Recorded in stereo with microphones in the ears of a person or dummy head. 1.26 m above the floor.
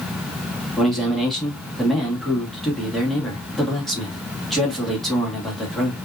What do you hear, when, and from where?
0.8 s a man speaking: 5° right (ahead or behind), 2.5 m